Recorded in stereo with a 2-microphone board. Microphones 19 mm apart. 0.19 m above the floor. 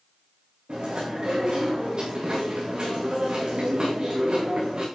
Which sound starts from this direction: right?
Chewing, at 0.7 s.